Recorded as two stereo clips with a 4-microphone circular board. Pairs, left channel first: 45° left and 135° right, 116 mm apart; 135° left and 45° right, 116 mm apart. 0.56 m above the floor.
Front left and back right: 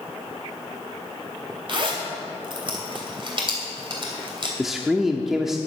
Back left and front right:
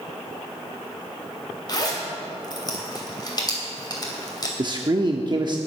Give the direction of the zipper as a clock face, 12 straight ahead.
6 o'clock.